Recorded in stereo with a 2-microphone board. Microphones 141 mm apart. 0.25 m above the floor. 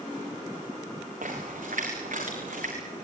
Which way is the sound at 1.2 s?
70° right (ahead or behind).